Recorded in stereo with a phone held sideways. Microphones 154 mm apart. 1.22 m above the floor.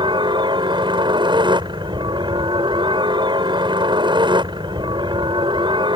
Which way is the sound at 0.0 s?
30° right (ahead or behind).